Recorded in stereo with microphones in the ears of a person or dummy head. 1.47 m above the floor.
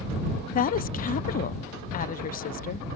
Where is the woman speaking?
40° left (ahead or behind).